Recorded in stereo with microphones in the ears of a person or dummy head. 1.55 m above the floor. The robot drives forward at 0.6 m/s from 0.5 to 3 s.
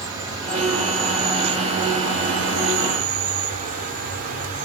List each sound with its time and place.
0.0 s an insect: 20° right (ahead or behind), 1.3 m; by 4.7 s 45° right (ahead or behind), 0.6 m